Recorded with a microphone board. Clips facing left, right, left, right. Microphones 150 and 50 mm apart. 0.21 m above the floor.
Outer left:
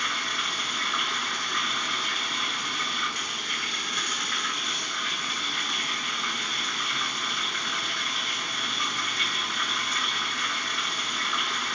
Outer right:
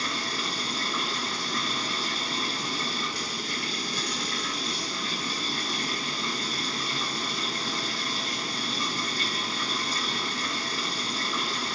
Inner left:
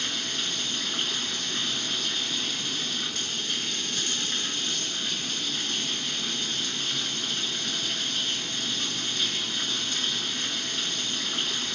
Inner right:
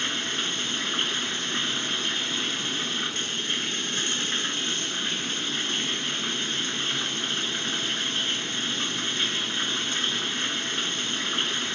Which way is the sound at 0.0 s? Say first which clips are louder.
Outer right 2 dB, inner right 3 dB; 35° right (ahead or behind).